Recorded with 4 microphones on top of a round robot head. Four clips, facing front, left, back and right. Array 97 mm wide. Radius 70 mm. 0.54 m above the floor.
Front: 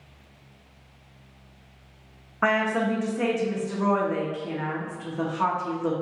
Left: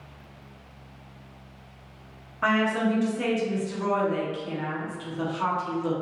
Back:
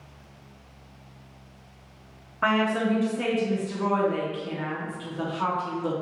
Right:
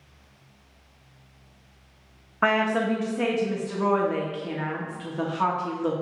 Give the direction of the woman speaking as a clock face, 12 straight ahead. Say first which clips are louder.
Right 1 dB, even; 2 o'clock.